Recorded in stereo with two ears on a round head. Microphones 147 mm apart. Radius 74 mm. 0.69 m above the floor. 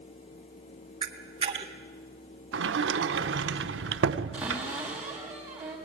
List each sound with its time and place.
1.0 s a camera shutter: 30° right (ahead or behind), 1.4 m
2.5 s a sliding door: 85° right, 0.7 m
4.3 s a cupboard door: 5° right (ahead or behind), 5 m